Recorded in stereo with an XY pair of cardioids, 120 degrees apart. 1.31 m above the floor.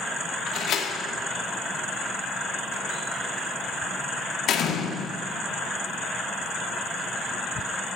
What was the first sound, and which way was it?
A door slam, 60° left.